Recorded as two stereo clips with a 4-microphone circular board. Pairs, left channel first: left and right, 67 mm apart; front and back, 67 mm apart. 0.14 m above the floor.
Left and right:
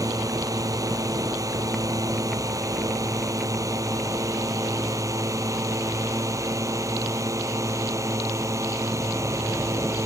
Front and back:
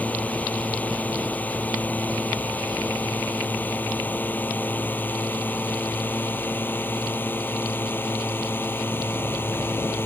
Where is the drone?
65° right; by 10.1 s 55° right.